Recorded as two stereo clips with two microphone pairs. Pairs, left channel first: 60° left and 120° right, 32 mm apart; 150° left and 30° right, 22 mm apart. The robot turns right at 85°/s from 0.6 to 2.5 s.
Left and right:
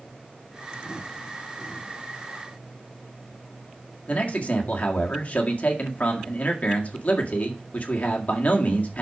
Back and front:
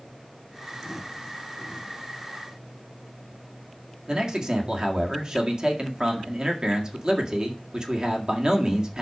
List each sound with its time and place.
4.1 s a man speaking: 20° left, 1.9 m